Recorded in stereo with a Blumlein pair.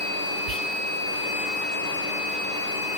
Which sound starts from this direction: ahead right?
Whispering, at 0.5 s.